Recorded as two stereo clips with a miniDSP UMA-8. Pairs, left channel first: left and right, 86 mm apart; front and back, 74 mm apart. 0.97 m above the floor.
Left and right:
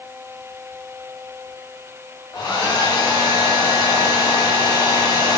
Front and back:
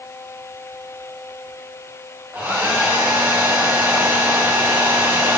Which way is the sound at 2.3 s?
120° left.